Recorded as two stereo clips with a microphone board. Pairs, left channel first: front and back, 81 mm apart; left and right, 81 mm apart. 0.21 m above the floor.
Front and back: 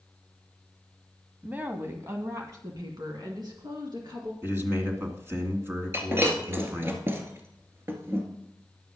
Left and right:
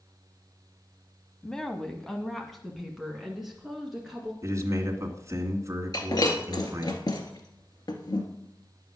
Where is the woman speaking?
160° left, 1.2 m; by 4.3 s 175° right, 2.5 m.